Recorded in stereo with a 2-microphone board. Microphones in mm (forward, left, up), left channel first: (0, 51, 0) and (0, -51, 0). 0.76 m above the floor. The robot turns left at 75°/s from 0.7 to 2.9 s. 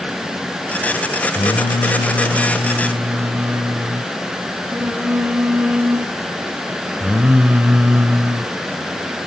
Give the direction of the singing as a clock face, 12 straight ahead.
9 o'clock.